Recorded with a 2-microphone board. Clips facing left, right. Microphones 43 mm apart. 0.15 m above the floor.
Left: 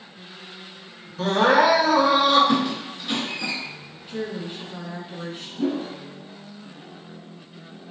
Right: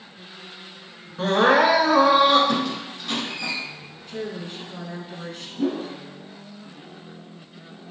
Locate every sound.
1.2 s crying: 25° right (ahead or behind), 0.9 m
2.5 s a squeak: 10° left (ahead or behind), 1.2 m
4.1 s a woman speaking: 15° left (ahead or behind), 1.2 m
5.6 s a whoosh: 10° right (ahead or behind), 1.2 m